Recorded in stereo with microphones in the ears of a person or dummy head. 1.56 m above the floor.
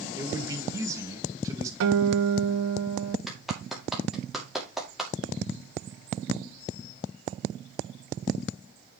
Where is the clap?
10° right (ahead or behind), 2.5 m.